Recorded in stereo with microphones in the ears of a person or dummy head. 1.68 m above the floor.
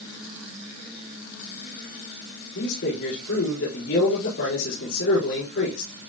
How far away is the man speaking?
About 4.5 m.